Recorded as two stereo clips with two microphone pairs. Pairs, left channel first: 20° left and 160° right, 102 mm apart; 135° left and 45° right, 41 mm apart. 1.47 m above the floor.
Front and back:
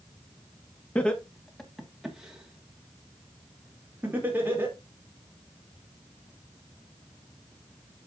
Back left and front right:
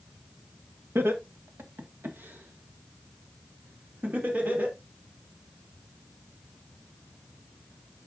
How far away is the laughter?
About 1.6 m.